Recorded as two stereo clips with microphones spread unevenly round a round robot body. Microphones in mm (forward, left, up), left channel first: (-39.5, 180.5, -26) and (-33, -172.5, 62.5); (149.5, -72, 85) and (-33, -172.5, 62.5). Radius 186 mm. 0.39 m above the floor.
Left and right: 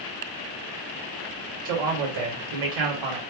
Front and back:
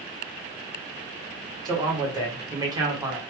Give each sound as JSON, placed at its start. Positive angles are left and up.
{"t": 1.6, "sound": "a man speaking", "azimuth_deg": -90, "distance_m": 1.9}